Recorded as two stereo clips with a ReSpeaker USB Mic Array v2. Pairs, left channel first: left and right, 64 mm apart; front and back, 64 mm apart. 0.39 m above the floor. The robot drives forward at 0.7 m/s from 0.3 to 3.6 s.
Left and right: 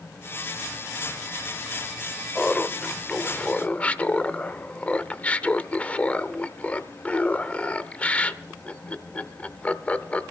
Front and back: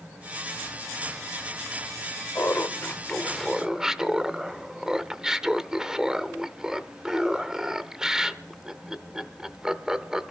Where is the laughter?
25° left, 1.1 m; by 10.3 s 115° left, 0.8 m.